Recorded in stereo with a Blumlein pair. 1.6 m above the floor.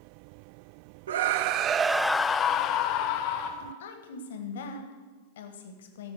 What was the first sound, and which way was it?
A scream, 60° right.